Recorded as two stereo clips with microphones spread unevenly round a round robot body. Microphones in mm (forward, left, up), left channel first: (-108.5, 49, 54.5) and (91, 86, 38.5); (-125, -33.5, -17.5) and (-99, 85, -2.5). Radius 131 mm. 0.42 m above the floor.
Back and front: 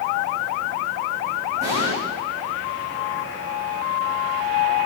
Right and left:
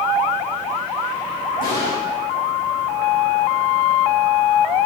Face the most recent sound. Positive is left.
turn(degrees=-105)